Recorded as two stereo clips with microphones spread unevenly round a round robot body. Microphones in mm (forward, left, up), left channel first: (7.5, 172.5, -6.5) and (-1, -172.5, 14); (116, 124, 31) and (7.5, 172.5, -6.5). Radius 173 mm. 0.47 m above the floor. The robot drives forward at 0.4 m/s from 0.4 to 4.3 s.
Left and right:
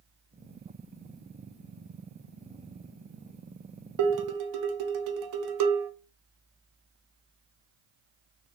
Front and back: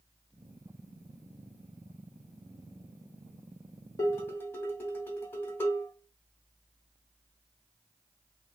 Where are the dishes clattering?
100° right, 0.7 m; by 5.9 s 115° right, 0.7 m.